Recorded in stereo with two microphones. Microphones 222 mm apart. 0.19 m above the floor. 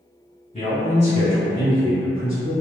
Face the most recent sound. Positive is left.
turn(degrees=15)  # may be behind; listen again after turning